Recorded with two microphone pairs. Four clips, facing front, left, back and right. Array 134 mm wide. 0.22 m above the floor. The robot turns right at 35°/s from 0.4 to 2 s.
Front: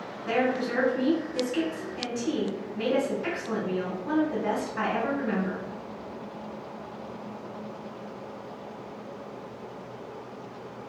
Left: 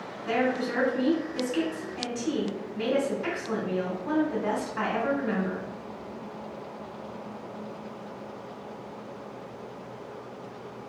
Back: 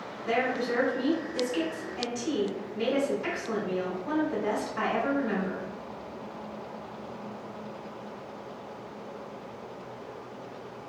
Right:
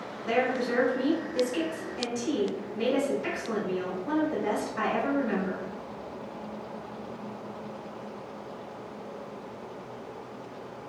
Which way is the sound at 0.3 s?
40° left.